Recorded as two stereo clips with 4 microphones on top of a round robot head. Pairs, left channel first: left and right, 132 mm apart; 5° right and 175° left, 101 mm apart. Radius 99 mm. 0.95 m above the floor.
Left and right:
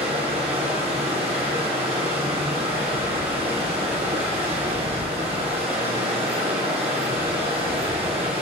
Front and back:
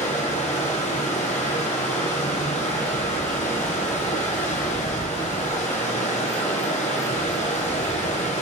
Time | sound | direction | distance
0.0 | running water | 35° right | 3 m